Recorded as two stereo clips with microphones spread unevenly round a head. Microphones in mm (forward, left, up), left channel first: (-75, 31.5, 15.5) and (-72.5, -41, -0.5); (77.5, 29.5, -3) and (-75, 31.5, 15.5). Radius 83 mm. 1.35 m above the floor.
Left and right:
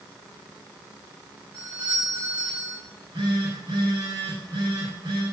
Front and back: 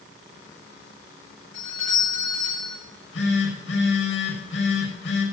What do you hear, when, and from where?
1.5 s a doorbell: 10° right, 9.5 m
2.9 s a phone buzzing: 15° right, 6 m